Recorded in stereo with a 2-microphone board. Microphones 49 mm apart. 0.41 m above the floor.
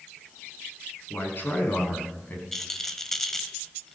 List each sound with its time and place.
1.1 s a man speaking: 50° left (ahead or behind), 5.5 m; by 2.4 s 35° left (ahead or behind), 4 m
2.5 s a rattle: 5° left (ahead or behind), 1.2 m